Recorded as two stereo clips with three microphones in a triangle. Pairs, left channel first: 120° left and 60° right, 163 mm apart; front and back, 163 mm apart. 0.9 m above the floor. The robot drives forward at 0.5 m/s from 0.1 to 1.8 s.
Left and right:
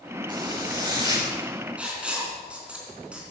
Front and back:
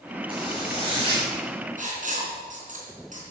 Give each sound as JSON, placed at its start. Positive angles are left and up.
{"t": 0.3, "sound": "a zipper", "azimuth_deg": -125, "distance_m": 7.5}
{"t": 1.8, "sound": "writing", "azimuth_deg": -145, "distance_m": 4.0}